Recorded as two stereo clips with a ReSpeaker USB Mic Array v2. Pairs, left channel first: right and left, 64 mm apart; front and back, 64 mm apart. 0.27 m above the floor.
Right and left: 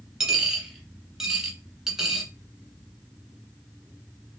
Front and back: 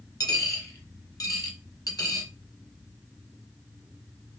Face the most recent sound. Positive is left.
turn(degrees=10)